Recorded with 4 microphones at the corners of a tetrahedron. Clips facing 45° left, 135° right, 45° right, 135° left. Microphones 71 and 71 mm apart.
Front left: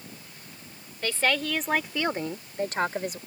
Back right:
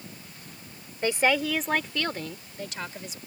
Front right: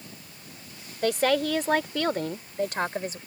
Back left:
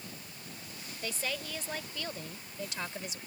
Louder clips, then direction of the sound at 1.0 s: Back right 3 dB, front right 15 dB; 70° right.